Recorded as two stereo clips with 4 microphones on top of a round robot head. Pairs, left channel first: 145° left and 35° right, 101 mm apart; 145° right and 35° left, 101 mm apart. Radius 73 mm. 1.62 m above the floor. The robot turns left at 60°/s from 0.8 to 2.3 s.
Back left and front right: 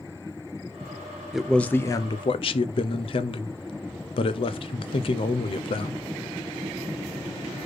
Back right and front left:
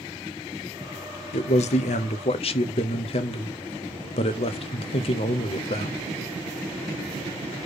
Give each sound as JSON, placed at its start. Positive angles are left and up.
{"t": 1.3, "sound": "a man speaking", "azimuth_deg": -120, "distance_m": 0.7}